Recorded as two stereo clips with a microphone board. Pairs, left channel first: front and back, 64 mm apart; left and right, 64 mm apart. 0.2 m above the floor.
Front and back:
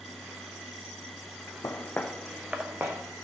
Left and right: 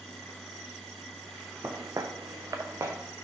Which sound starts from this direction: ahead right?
Footsteps, at 1.6 s.